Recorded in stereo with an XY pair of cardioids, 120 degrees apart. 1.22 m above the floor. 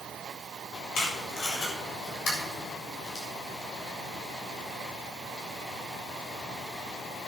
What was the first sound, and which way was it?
Tape being pulled, 55° left.